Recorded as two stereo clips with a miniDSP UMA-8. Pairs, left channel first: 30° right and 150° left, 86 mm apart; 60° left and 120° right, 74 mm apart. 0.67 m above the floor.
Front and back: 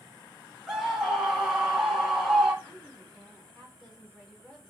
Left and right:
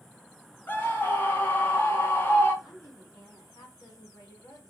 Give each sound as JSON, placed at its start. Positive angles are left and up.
{"t": 0.7, "sound": "a scream", "azimuth_deg": 70, "distance_m": 0.8}
{"t": 2.6, "sound": "a woman speaking", "azimuth_deg": 50, "distance_m": 1.6}